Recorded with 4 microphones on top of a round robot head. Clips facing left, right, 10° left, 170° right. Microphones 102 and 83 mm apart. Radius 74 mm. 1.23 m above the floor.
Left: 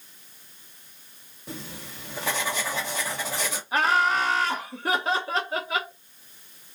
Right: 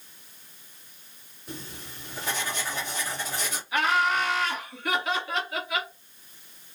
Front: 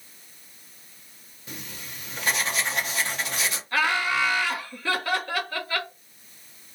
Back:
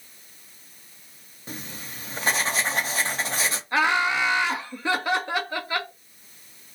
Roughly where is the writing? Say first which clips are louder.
Left 2 dB, back 3 dB; behind left.